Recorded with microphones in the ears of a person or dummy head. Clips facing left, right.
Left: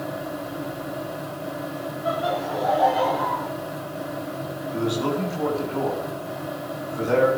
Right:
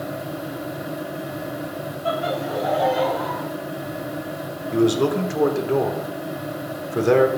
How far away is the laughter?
About 2.5 m.